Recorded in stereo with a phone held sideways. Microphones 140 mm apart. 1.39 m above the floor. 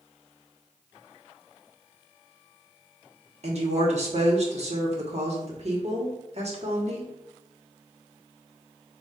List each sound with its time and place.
3.4 s a woman speaking: 55° right (ahead or behind), 1.4 m